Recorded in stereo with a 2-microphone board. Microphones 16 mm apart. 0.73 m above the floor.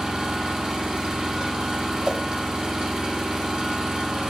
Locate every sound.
0.0 s an engine running: 75° right (ahead or behind), 2.5 m
2.0 s a whoosh: 60° right (ahead or behind), 0.8 m